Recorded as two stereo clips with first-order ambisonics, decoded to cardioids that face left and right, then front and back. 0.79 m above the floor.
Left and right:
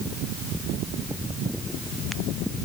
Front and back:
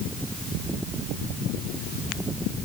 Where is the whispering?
No whispering in this recording.